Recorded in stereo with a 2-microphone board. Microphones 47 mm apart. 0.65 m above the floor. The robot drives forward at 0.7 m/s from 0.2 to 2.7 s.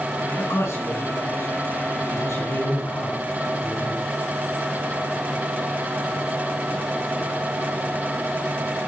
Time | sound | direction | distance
0.4 | a man speaking | 75° left (ahead or behind) | 5 m